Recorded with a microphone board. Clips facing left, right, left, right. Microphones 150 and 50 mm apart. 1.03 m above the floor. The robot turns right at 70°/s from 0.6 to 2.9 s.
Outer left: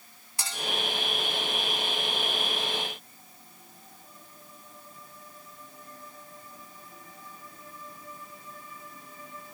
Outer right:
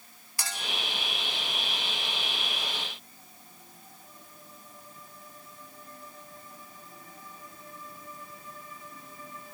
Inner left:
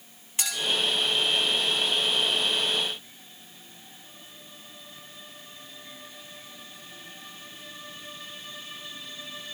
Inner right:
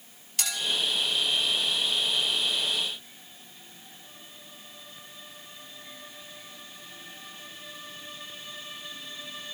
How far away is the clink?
About 1.8 m.